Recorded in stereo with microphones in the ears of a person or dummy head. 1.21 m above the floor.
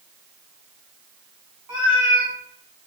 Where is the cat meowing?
15° right (ahead or behind), 1.0 m.